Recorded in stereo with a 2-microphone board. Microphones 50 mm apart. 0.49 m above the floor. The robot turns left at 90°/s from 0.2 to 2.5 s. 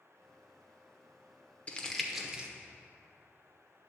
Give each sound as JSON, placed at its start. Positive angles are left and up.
{"t": 1.7, "sound": "crumpling", "side_deg": 25, "distance_m": 0.9}